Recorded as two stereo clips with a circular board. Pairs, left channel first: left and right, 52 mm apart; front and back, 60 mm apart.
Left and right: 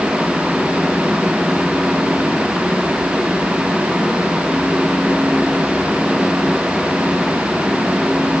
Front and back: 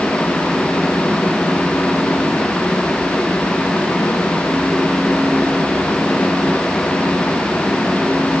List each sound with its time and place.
Only background noise.